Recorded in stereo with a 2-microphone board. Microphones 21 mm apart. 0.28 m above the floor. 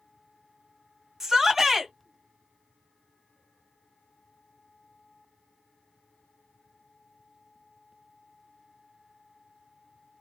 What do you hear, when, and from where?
1.2 s a shout: 20° right (ahead or behind), 2.0 m